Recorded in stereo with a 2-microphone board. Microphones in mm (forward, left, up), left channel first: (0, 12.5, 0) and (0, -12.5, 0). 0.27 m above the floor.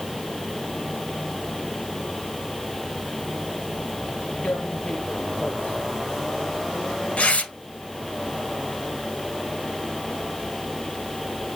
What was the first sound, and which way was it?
Tearing paper, 70° left (ahead or behind).